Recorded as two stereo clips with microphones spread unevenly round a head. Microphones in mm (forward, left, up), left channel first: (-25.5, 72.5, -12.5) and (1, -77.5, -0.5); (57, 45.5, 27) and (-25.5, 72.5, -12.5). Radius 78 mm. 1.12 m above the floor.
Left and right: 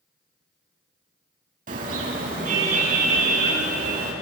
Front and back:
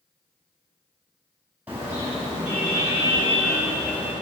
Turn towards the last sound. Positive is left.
turn(degrees=-110)